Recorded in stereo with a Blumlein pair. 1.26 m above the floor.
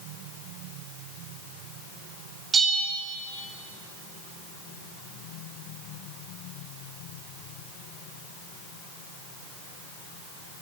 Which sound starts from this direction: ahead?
A bell, at 2.5 s.